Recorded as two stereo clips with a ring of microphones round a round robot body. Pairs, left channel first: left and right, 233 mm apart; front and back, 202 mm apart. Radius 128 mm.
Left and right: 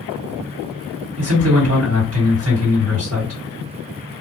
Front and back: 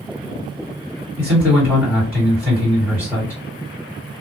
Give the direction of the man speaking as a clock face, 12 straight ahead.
3 o'clock.